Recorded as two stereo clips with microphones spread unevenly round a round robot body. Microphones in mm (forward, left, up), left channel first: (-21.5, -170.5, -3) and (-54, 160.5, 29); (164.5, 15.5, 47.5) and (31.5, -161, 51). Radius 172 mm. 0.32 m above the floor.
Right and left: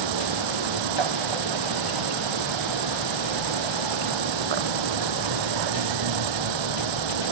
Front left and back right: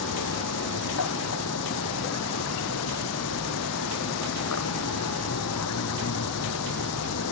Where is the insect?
90° left.